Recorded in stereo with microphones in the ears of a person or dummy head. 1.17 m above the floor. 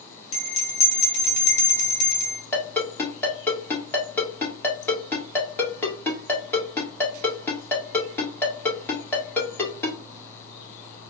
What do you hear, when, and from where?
0.3 s a bell: 35° left (ahead or behind), 2.0 m
2.5 s a ringtone: 5° left (ahead or behind), 2 m